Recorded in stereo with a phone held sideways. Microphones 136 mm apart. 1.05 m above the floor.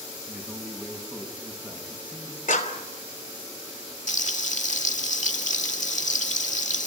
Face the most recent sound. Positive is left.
turn(degrees=65)  # may be behind; listen again after turning